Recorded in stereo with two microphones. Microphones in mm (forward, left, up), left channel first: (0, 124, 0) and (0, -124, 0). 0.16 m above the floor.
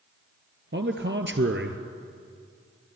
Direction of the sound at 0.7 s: 50° right (ahead or behind).